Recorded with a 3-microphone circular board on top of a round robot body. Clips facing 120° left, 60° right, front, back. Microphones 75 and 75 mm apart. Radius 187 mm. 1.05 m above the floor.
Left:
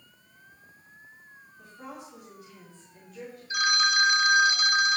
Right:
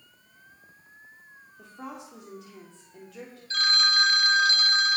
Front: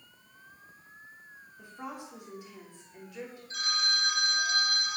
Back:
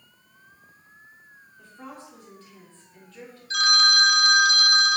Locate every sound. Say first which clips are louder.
1.6 s a woman speaking: right 3 dB, front 1 dB; 75° right, 3.5 m
3.5 s a phone ringing: left 1 dB, back 12 dB; 165° right, 0.7 m